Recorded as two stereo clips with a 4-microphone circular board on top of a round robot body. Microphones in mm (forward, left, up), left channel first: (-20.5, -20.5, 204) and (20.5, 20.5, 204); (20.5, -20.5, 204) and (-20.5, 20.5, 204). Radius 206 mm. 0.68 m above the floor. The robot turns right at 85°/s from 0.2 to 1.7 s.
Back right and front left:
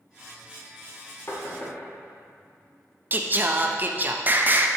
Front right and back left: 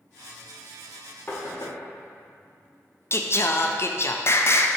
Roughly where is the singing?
Ahead.